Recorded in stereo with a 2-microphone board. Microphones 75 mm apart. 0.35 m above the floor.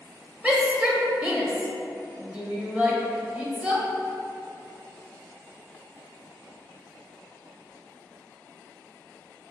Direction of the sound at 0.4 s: 15° right (ahead or behind).